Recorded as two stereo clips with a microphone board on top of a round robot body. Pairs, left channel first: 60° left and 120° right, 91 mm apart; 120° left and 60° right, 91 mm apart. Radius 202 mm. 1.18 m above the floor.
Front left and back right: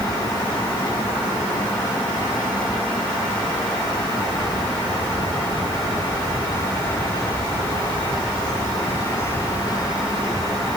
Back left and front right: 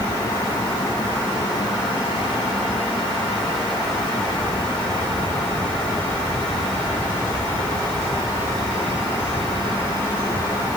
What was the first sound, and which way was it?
Only background noise.